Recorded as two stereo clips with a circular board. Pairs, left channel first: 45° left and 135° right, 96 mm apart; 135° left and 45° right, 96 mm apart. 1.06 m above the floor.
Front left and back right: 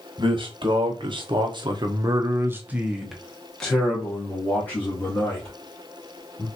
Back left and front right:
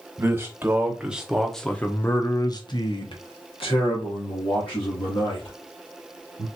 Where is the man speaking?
105° right, 1.2 m; by 6.5 s 110° left, 2.5 m.